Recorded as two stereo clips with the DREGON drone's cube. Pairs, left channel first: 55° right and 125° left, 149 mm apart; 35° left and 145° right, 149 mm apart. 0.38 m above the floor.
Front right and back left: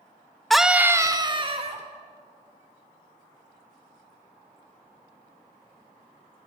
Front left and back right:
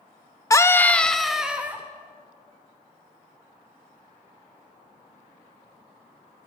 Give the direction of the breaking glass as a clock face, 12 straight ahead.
No breaking glass in this recording.